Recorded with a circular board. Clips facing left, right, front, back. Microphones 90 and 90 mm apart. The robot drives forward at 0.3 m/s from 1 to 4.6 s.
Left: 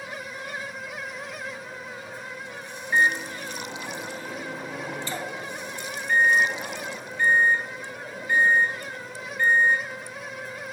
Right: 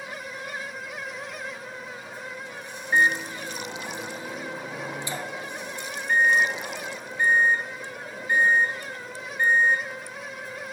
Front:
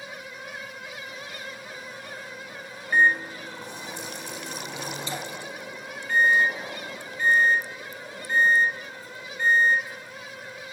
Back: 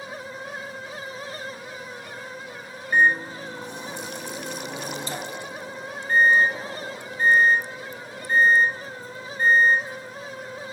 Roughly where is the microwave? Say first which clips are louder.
Even, back 1 dB; behind right.